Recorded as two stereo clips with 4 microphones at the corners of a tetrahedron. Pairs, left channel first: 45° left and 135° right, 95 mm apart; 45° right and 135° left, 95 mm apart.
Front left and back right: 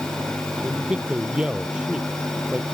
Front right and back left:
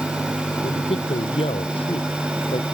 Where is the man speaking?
55° right.